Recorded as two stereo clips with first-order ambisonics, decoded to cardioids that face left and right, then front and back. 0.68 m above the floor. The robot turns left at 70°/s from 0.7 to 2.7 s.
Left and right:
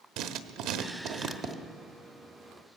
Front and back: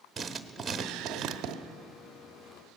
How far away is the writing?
About 1.2 m.